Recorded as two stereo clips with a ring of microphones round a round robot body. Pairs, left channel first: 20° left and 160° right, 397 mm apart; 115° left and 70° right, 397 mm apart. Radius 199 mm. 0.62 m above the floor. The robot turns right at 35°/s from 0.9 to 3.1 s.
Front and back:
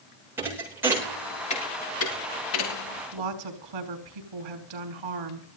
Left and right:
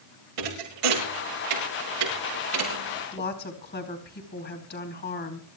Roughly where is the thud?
Right.